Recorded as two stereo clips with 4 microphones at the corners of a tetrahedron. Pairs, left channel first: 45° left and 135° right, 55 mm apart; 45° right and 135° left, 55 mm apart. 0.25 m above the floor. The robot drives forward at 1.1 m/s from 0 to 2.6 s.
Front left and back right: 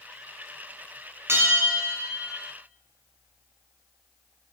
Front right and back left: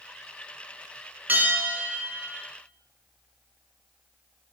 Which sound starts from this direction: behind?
A bell, at 1.3 s.